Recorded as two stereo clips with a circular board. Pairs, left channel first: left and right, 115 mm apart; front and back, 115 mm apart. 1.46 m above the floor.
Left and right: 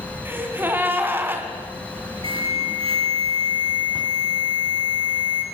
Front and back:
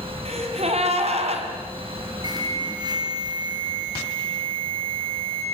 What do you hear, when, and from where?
0.2 s a gasp: 160° right, 3.5 m
2.2 s an alarm: 130° right, 6.5 m